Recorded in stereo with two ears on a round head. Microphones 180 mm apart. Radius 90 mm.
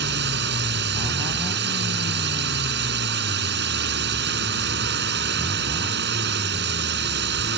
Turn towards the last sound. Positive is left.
turn(degrees=-55)  # may be behind; listen again after turning